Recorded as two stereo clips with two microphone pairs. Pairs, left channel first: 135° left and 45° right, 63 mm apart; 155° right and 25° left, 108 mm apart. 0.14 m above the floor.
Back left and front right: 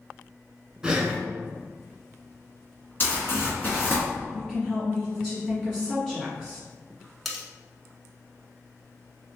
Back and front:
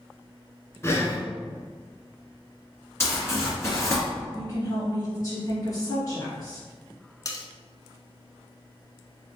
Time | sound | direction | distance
0.8 | breathing | 115° right | 0.8 m
3.0 | crumpling | 160° left | 1.9 m
4.3 | a woman speaking | 155° right | 1.3 m
7.2 | cutlery clinking | 135° right | 0.8 m